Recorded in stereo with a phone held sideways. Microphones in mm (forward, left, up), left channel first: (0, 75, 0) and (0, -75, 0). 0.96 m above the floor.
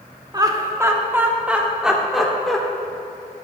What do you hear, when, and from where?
0.3 s laughter: 25° right (ahead or behind), 1.5 m; by 2.6 s centre (ahead or behind), 2.5 m